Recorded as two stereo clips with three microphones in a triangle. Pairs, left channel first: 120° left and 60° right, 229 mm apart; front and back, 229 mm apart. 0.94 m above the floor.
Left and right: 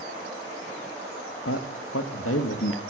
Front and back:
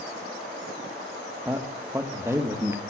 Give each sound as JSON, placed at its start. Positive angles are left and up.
{"t": 1.4, "sound": "a man speaking", "azimuth_deg": 100, "distance_m": 1.1}